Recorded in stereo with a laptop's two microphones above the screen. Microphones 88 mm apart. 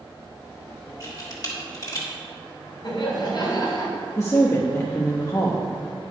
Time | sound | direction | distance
1.0 | a camera shutter | 40° left (ahead or behind) | 1.8 m
2.8 | laughter | 50° left (ahead or behind) | 3.5 m
4.2 | a woman speaking | 30° left (ahead or behind) | 0.9 m